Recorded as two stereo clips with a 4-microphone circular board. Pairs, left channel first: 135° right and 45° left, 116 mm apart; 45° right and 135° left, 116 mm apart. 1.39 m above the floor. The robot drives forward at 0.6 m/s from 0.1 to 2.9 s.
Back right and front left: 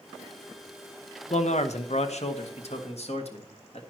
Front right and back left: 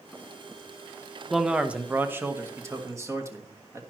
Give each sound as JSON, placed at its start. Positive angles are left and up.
{"t": 1.3, "sound": "a man speaking", "azimuth_deg": -135, "distance_m": 0.9}